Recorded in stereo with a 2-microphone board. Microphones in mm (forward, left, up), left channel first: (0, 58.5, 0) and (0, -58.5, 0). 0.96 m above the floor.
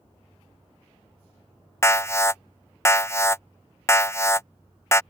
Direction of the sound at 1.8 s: 25° left (ahead or behind).